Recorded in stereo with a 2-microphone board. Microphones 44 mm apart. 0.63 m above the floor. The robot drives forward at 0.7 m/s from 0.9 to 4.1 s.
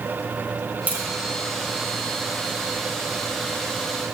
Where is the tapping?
40° right (ahead or behind), 2.0 m; by 1.0 s 35° right (ahead or behind), 2 m.